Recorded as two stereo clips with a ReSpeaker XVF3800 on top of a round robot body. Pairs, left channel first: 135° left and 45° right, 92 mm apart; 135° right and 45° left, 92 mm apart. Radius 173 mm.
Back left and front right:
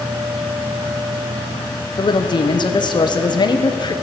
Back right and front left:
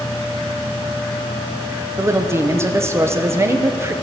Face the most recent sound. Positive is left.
turn(degrees=105)